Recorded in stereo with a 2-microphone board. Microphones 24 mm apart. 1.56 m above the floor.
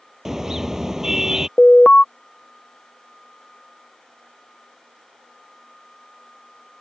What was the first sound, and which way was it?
A car horn, 20° right (ahead or behind).